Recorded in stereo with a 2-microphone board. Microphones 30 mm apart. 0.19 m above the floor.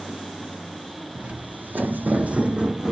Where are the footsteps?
50° right (ahead or behind), 0.9 m; by 2.9 s 25° right (ahead or behind), 0.9 m.